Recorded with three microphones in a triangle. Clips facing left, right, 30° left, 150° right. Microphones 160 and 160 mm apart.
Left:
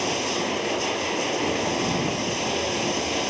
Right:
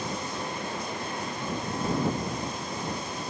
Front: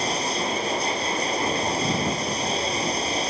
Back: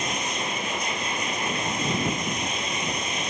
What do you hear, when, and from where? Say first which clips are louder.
0.0 s running water: left 7 dB, front 4 dB; 85° left